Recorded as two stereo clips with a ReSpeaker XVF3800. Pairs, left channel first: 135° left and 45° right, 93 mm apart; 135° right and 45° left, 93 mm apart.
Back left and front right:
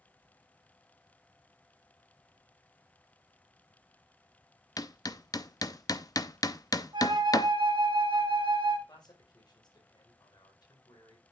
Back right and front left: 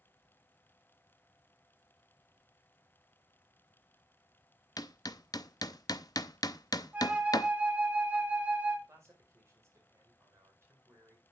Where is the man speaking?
100° left, 4.5 m.